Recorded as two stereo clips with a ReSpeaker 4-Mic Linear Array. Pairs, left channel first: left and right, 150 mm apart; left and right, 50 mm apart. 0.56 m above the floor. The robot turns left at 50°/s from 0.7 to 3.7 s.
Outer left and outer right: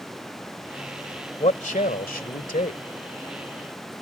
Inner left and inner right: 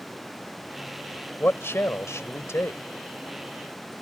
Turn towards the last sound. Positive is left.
turn(degrees=15)